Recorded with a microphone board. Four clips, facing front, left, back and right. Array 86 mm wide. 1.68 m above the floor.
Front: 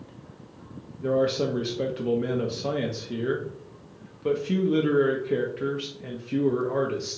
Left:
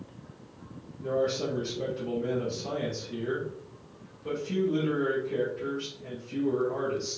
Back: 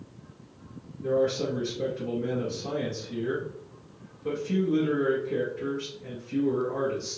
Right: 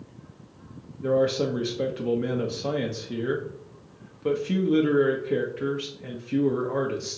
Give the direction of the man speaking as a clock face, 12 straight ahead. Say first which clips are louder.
Right 5 dB, front 2 dB; 2 o'clock.